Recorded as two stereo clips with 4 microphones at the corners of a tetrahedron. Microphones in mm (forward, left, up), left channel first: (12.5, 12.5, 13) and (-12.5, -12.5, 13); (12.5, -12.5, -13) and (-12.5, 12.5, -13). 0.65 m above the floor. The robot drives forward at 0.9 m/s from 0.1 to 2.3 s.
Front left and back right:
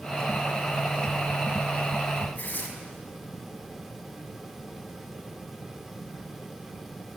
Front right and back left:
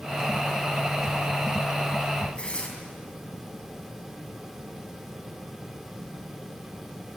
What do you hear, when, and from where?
2.4 s tearing paper: 15° left, 4.5 m